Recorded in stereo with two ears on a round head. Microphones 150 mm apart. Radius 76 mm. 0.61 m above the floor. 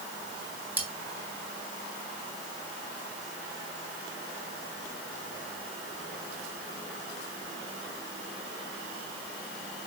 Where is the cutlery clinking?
10° right (ahead or behind), 2.5 m.